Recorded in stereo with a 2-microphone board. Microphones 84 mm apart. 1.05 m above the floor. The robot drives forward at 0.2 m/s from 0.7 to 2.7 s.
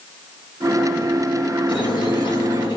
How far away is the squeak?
About 0.9 m.